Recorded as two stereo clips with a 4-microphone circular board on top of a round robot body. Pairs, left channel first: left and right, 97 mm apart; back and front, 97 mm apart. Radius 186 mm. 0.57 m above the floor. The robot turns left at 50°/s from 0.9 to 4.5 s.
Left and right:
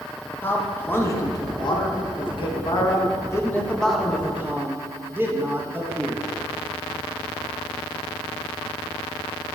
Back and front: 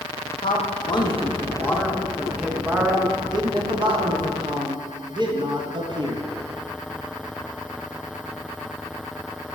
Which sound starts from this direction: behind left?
A man speaking, at 0.4 s.